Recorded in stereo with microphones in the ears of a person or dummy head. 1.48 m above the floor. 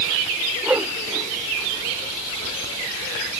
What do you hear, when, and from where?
0.6 s a whoosh: 15° right (ahead or behind)